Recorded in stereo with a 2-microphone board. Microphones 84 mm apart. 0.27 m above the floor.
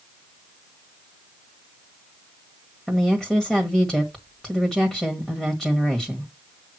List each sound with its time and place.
2.9 s a woman speaking: 10° left (ahead or behind), 1.6 m